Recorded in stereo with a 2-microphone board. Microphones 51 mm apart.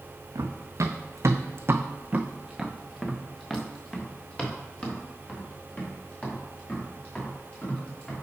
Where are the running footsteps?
75° right (ahead or behind), 1.2 m; by 8.2 s 30° left (ahead or behind), 4.5 m.